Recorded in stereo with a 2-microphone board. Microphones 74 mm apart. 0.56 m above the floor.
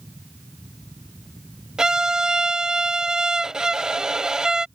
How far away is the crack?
I don't hear a crack.